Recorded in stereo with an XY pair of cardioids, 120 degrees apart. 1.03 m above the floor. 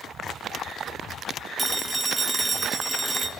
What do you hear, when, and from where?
1.6 s a phone ringing: 20° right, 0.7 m